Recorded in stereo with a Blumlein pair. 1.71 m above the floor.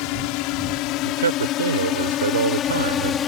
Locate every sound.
0.0 s a drone: 45° left; by 3.3 s 25° left
1.1 s a man speaking: 70° right